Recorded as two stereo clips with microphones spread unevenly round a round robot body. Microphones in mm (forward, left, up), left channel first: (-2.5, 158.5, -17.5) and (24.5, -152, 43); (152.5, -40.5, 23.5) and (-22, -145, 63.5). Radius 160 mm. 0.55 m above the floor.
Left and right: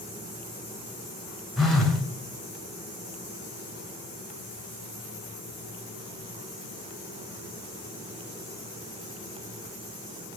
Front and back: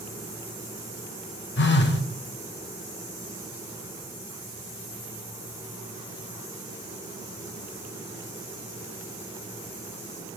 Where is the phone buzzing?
10° left, 1.8 m.